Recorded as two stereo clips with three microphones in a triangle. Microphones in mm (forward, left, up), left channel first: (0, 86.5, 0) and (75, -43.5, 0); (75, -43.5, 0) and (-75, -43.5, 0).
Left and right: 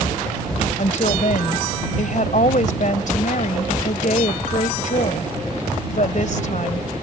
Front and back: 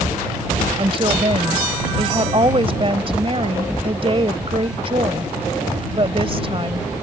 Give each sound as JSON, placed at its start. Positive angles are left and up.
{"t": 0.8, "sound": "a woman speaking", "azimuth_deg": 135}